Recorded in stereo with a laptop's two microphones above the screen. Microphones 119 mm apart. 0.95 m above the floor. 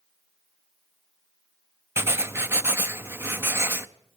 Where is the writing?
20° right (ahead or behind), 0.5 m.